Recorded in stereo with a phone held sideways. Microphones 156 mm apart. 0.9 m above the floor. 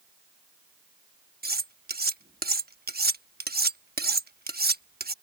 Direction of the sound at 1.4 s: 80° right.